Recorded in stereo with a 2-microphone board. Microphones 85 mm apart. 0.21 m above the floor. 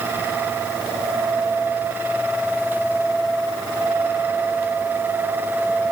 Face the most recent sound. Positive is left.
No sound to turn to.